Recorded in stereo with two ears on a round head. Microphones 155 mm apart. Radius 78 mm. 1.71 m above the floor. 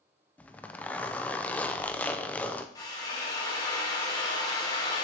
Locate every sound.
0.4 s a zipper: 10° left (ahead or behind), 0.5 m
2.8 s a drill: 20° left (ahead or behind), 1.8 m